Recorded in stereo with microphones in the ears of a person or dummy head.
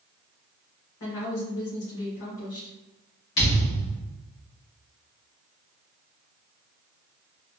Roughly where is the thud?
Left.